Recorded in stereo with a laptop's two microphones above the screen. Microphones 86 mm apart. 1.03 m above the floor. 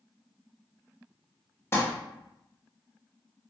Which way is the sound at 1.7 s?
30° left (ahead or behind).